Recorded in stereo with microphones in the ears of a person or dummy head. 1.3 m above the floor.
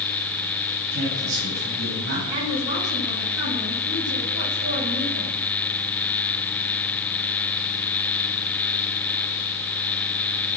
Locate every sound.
0.9 s a man speaking: 90° right, 8.5 m
2.3 s a woman speaking: 65° right (ahead or behind), 9.5 m